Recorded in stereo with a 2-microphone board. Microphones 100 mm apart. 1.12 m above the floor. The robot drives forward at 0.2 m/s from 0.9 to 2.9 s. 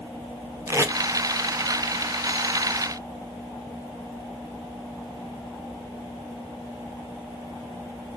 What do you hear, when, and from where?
0.7 s tape being pulled: 30° right (ahead or behind), 0.8 m